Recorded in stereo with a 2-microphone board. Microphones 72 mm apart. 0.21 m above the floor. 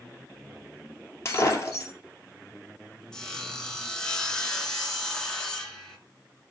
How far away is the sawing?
About 2.5 m.